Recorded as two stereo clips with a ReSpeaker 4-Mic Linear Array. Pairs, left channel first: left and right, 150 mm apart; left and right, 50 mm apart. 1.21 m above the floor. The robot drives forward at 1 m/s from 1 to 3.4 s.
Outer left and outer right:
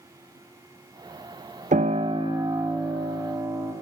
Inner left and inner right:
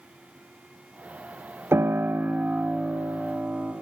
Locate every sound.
1.7 s a piano: 55° right (ahead or behind), 0.5 m; by 3.7 s 15° right (ahead or behind), 2.0 m